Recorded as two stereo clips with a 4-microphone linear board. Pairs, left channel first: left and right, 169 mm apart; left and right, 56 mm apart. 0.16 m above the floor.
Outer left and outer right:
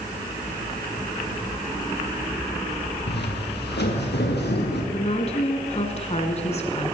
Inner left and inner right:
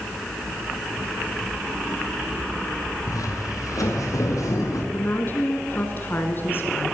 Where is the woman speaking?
40° left (ahead or behind), 1.8 m.